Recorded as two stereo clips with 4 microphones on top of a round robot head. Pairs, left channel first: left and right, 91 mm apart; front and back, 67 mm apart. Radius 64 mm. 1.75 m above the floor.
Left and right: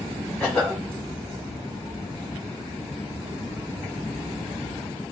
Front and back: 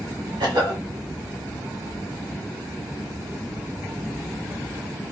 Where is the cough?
170° left, 1.4 m.